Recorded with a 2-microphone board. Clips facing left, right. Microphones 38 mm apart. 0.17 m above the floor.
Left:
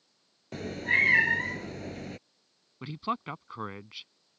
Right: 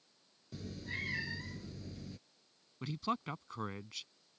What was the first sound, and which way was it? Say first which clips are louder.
A cat meowing: left 17 dB; 70° left (ahead or behind).